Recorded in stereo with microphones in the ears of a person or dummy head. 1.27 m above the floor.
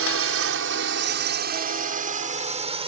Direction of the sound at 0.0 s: 75° right (ahead or behind).